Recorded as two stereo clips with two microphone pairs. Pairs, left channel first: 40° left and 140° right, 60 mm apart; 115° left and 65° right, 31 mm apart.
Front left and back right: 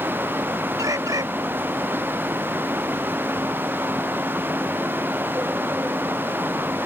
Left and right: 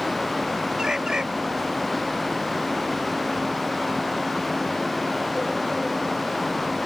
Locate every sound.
0.8 s a bird: 135° right